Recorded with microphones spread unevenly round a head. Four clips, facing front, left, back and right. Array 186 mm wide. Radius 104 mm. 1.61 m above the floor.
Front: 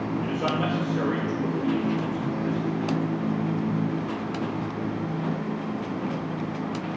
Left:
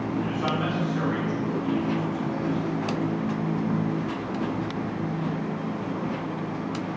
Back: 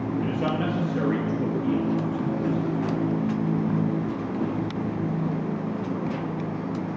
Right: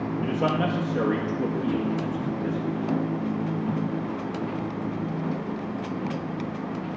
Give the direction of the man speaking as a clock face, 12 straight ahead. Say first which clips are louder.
Right 6 dB, even; 4 o'clock.